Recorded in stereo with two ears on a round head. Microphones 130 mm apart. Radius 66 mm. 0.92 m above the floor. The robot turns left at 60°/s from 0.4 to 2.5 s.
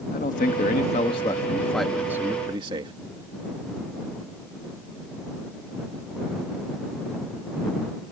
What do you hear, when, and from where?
0.1 s a man speaking: 85° left; by 2.9 s 40° right